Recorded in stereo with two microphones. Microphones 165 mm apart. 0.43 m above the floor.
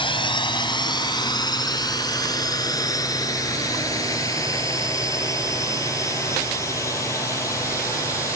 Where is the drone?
30° left (ahead or behind); by 8.4 s 20° left (ahead or behind).